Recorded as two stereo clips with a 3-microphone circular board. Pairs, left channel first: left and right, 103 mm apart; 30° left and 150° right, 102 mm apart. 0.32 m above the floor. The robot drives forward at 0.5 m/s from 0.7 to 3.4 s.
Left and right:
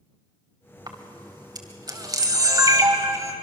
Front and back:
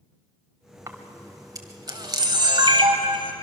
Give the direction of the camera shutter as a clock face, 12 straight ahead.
3 o'clock.